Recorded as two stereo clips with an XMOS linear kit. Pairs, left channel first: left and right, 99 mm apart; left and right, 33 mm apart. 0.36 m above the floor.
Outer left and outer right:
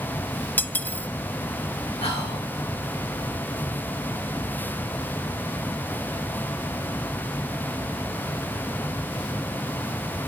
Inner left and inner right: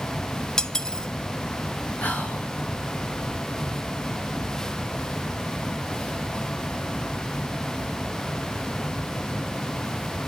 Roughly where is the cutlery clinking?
Centre.